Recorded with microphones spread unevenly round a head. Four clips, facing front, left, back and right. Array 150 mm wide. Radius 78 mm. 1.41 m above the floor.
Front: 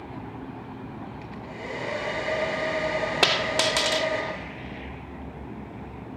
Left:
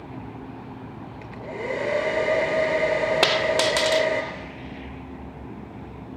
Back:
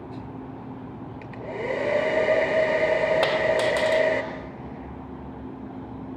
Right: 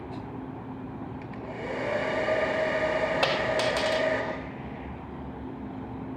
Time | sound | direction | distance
1.2 | a hair dryer | 135° left | 5 m
3.2 | a dropped coin | 60° left | 1.6 m